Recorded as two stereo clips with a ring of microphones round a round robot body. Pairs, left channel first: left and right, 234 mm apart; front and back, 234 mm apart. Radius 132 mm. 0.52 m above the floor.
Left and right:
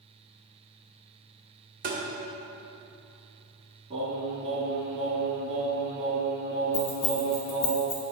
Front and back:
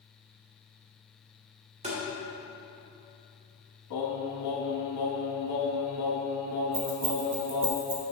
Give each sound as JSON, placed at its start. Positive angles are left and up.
{"t": 1.8, "sound": "tapping", "azimuth_deg": -125, "distance_m": 1.7}
{"t": 3.9, "sound": "singing", "azimuth_deg": -20, "distance_m": 1.3}
{"t": 6.7, "sound": "keys jangling", "azimuth_deg": 120, "distance_m": 1.7}